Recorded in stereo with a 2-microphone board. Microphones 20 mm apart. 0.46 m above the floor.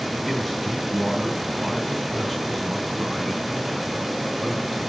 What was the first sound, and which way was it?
A man speaking, centre (ahead or behind).